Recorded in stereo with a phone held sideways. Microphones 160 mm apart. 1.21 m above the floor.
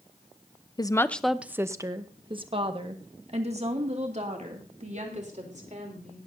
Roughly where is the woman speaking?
Left.